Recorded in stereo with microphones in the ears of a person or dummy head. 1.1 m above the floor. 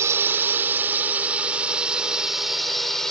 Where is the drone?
15° right (ahead or behind); by 3.1 s 5° left (ahead or behind).